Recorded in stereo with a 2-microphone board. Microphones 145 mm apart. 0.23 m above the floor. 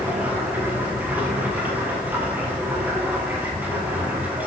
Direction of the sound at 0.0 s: 10° right (ahead or behind).